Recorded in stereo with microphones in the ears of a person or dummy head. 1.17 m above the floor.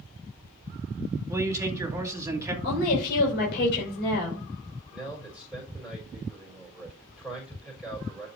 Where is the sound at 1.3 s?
15° right (ahead or behind), 2 m.